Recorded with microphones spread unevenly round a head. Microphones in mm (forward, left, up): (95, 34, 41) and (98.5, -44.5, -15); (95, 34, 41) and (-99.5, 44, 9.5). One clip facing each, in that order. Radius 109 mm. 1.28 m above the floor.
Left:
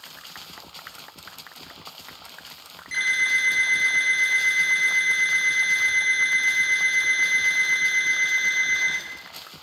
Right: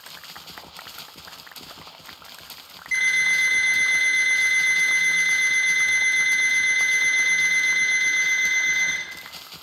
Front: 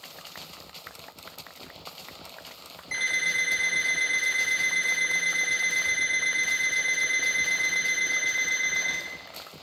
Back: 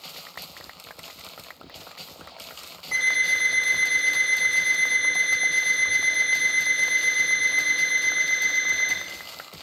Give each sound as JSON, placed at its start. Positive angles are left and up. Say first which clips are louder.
{"t": 2.9, "sound": "an alarm clock", "louder": "right 2 dB, back 3 dB", "azimuth_deg": 65, "distance_m": 0.9}